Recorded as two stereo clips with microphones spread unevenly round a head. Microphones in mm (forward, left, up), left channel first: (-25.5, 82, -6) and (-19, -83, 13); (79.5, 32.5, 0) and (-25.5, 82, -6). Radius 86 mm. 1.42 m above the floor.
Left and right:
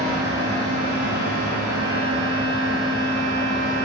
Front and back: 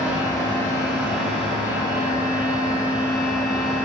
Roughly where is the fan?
Right.